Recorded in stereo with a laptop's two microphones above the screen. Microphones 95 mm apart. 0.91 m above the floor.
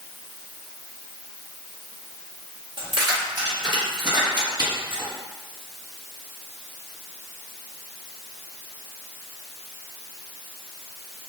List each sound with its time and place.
2.8 s keys jangling: 50° right (ahead or behind), 1.0 m; by 5.1 s 55° right (ahead or behind), 4.5 m